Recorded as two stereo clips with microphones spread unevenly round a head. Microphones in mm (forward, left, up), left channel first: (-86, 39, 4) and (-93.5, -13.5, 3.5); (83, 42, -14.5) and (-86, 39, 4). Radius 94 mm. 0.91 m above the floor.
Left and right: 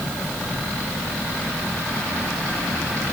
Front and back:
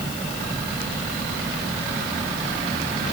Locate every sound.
Only background noise.